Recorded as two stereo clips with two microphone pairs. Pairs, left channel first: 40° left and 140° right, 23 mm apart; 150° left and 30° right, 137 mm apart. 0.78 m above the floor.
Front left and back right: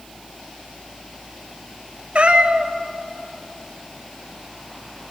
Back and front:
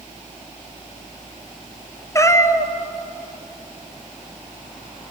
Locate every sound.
2.1 s a cat meowing: 145° right, 1.0 m